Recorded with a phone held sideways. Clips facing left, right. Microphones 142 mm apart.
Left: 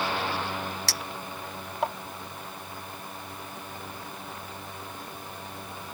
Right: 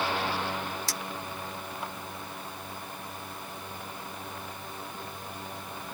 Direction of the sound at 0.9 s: 75° left (ahead or behind).